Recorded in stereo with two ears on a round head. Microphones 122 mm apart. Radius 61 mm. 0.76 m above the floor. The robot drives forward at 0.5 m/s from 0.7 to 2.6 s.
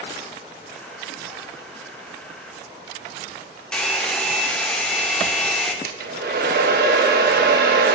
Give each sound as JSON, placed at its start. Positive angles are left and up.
{"t": 3.7, "sound": "a hair dryer", "side_deg": 5, "distance_m": 1.0}
{"t": 5.8, "sound": "a hair dryer", "side_deg": -75, "distance_m": 1.1}